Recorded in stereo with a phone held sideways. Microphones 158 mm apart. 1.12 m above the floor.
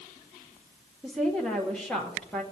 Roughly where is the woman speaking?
Centre.